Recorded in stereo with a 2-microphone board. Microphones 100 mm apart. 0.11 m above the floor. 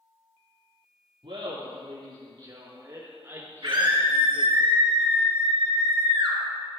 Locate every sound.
1.2 s laughter: 65° right (ahead or behind), 3.5 m; by 4.5 s 5° left (ahead or behind), 2 m
3.6 s a scream: 60° right (ahead or behind), 3.5 m